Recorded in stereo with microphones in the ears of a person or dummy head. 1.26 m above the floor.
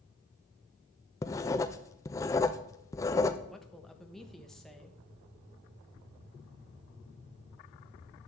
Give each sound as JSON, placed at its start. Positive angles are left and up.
{"t": 1.2, "sound": "writing", "side_deg": 15, "distance_m": 0.5}
{"t": 3.5, "sound": "a woman speaking", "side_deg": 0, "distance_m": 1.1}